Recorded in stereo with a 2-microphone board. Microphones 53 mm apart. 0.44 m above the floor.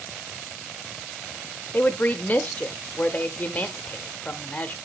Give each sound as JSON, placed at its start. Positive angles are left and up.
{"t": 1.7, "sound": "a woman speaking", "side_deg": 35, "distance_m": 0.9}